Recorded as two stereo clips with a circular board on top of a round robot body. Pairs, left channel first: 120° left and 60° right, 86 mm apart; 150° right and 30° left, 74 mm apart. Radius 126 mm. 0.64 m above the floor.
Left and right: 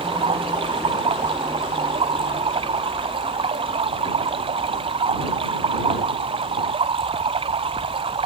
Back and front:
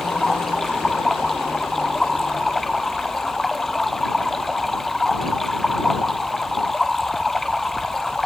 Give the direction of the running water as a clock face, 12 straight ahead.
2 o'clock.